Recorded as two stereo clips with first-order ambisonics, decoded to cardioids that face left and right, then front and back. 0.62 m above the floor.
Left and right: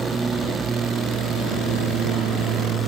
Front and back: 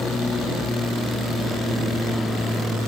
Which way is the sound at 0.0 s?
55° right.